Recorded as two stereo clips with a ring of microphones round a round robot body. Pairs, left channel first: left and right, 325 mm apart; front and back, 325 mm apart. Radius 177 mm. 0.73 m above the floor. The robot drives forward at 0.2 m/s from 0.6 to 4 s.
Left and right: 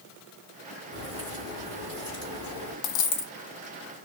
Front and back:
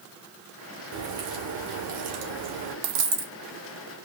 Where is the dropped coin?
130° left, 0.7 m; by 3.3 s 135° left, 0.8 m.